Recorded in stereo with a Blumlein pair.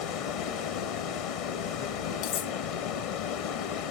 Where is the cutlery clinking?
45° left, 1.3 m.